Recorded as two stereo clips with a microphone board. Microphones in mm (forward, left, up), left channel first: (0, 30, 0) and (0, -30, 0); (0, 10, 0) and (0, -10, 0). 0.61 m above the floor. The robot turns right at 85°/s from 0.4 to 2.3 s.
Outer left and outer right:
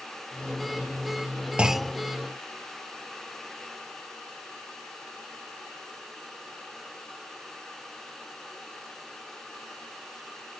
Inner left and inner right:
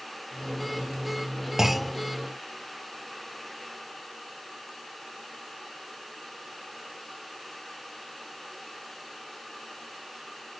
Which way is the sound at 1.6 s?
15° right.